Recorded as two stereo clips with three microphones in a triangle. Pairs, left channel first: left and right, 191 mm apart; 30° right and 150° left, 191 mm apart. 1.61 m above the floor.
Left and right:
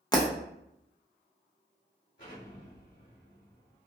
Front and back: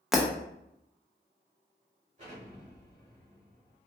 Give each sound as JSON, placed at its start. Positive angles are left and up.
{"t": 0.1, "sound": "breaking glass", "azimuth_deg": 65, "distance_m": 0.7}
{"t": 2.2, "sound": "an explosion", "azimuth_deg": 100, "distance_m": 1.8}